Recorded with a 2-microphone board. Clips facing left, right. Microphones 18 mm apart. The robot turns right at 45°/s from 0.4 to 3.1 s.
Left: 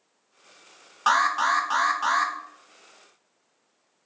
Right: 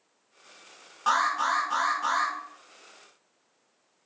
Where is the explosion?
No explosion in this recording.